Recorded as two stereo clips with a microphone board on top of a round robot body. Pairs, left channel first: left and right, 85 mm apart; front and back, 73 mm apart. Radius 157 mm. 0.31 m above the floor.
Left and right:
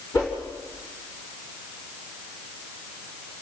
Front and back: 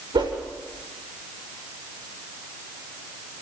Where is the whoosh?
150° left, 7.5 m.